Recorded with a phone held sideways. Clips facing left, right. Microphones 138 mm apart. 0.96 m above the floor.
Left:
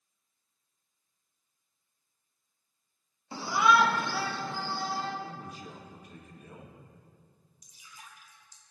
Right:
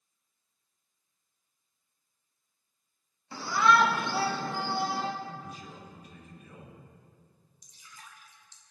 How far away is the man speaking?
About 2.5 m.